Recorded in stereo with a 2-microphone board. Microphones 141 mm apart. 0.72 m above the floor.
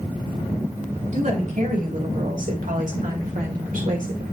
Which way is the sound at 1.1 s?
60° right (ahead or behind).